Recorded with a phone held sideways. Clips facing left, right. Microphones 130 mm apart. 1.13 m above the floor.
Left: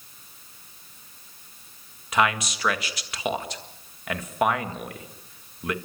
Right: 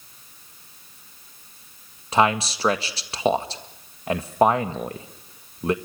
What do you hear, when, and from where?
2.1 s a man speaking: 30° right (ahead or behind), 1.7 m